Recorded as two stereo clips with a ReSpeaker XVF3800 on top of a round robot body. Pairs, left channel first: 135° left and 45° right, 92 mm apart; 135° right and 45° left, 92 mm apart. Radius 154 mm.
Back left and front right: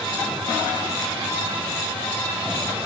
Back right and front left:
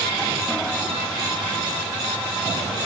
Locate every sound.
Only background noise.